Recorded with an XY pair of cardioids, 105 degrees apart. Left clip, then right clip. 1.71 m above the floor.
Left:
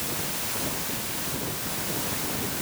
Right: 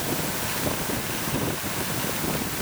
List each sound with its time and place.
Only background noise.